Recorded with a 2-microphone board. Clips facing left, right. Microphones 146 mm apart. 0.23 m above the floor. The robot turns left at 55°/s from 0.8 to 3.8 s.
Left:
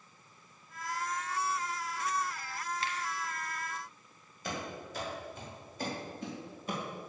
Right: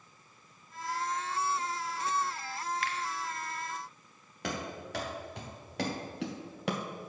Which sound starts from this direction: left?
A finger snap, at 2.8 s.